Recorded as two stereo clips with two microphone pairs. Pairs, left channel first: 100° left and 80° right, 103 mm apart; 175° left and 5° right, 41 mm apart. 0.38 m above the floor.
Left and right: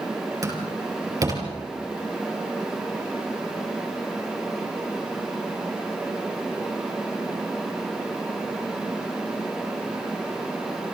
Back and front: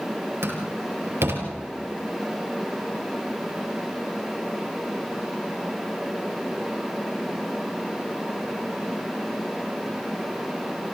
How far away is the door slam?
About 5 m.